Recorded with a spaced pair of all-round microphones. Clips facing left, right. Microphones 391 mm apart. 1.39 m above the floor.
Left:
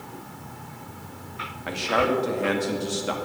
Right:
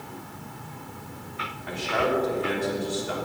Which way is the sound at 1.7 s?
85° left.